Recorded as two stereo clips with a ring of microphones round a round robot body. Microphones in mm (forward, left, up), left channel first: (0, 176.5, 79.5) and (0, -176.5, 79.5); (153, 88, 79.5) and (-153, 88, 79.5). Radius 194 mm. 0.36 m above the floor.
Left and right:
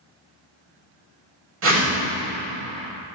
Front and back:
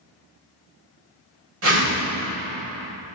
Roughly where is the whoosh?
Behind right.